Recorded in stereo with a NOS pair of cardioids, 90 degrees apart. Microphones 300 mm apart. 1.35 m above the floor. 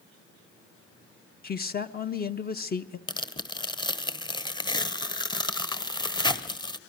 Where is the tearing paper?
15° left, 1.0 m.